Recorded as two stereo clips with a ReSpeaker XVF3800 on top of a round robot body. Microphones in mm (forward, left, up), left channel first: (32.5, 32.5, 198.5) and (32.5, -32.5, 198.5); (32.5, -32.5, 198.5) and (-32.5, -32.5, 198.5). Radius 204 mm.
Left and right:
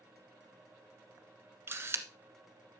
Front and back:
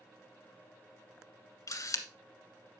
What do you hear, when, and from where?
1.7 s a camera shutter: 35° right, 1.3 m